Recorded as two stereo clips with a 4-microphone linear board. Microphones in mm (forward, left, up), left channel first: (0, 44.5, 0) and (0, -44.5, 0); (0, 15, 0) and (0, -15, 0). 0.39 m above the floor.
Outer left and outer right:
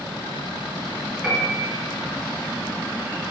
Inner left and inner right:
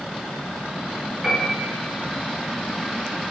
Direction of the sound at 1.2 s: 5° left (ahead or behind).